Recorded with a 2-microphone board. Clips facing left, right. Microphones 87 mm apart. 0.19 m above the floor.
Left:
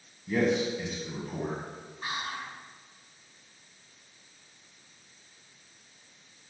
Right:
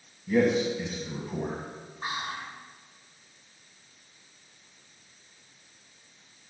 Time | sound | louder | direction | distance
0.3 | a man speaking | right 3 dB | centre (ahead or behind) | 1.2 m
2.0 | whispering | right 1 dB | 20° right (ahead or behind) | 1.7 m